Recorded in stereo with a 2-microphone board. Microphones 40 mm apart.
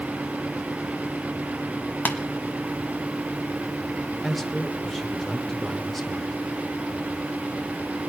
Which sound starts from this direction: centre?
A man speaking, at 4.2 s.